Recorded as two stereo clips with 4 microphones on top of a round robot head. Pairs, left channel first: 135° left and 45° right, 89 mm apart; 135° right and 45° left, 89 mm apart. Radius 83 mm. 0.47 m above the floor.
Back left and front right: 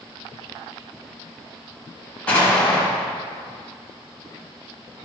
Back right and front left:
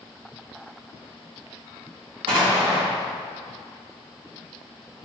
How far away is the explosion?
About 4 m.